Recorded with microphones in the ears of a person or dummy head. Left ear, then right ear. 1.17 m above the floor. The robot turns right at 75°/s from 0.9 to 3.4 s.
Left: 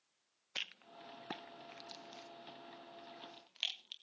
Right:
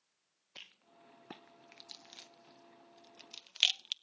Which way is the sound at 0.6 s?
40° left (ahead or behind).